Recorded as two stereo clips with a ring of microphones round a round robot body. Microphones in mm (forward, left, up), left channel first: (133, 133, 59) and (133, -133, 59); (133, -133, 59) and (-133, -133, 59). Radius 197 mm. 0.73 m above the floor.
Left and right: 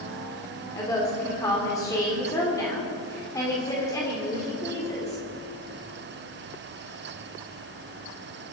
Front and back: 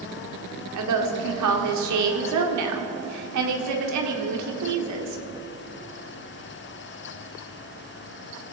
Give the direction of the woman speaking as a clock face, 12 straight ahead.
6 o'clock.